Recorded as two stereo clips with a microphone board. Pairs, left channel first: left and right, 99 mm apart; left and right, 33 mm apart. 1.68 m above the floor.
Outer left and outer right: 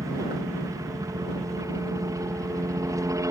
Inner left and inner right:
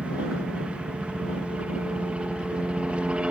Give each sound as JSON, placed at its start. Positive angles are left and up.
{"t": 0.0, "sound": "a helicopter", "side_deg": -35}